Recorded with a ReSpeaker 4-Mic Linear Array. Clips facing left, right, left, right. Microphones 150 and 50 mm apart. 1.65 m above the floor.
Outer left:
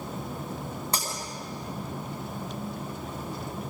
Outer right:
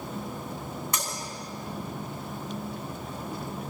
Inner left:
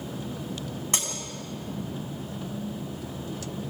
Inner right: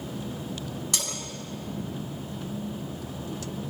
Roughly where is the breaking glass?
Left.